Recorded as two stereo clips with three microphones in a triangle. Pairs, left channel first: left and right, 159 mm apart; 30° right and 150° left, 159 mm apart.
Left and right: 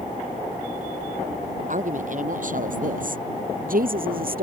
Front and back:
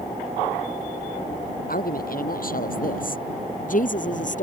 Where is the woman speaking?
55° right; by 4.4 s 65° right.